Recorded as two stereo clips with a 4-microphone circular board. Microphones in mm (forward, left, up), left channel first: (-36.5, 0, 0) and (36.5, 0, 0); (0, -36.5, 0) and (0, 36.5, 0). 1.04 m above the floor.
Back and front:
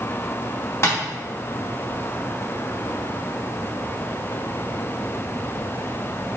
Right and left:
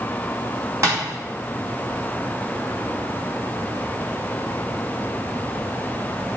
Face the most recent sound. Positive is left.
turn(degrees=130)